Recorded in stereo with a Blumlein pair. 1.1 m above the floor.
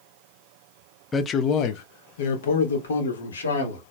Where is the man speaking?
15° left, 0.5 m; by 3.8 s 70° left, 1.7 m.